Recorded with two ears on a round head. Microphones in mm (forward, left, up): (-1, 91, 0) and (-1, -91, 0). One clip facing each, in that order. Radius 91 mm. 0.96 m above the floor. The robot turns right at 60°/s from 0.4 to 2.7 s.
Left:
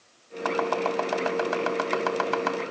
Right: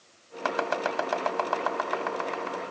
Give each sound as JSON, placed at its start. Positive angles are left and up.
{"t": 0.5, "sound": "chopping", "side_deg": -40, "distance_m": 2.5}